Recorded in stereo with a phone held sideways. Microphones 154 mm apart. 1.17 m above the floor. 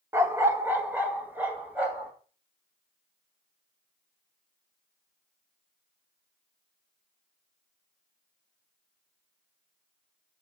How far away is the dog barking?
About 0.9 m.